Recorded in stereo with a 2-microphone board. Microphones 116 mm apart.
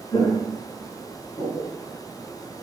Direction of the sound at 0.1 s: 45° left (ahead or behind).